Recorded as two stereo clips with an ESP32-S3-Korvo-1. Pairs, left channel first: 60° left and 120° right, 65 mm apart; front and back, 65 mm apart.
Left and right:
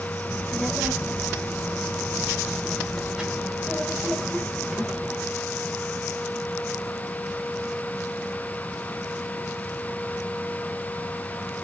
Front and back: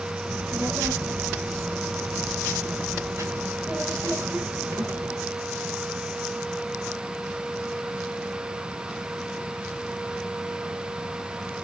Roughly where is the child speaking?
Behind.